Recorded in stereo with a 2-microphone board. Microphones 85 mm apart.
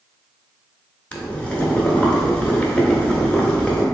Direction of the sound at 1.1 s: 15° left (ahead or behind).